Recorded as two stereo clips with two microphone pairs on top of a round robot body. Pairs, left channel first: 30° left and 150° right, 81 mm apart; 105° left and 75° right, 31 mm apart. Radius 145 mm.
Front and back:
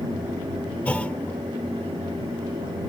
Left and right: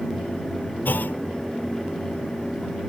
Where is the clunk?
105° left.